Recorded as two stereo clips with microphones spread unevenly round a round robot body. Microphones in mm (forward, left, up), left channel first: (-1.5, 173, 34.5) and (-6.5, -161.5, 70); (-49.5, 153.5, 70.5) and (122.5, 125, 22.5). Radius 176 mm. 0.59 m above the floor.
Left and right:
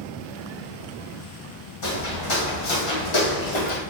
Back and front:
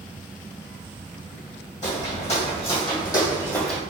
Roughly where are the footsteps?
Behind left.